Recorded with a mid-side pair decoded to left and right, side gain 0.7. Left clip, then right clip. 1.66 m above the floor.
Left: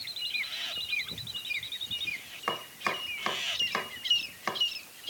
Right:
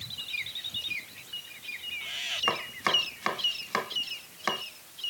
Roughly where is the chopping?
Ahead.